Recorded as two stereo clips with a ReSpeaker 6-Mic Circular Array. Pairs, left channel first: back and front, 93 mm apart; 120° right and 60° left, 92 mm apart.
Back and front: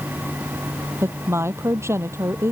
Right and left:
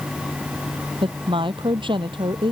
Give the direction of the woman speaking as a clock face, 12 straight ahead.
10 o'clock.